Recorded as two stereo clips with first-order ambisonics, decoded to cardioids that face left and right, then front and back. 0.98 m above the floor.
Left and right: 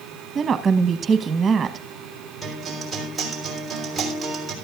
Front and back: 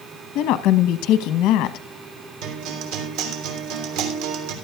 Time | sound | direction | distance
0.3 | a woman speaking | 20° right | 1.0 m
2.4 | a guitar | 175° right | 3 m